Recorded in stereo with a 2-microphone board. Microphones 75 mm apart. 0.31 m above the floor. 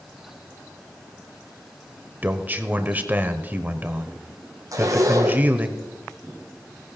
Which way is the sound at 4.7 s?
50° right (ahead or behind).